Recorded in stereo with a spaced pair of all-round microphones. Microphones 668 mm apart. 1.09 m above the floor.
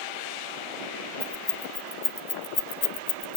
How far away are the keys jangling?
About 1.4 m.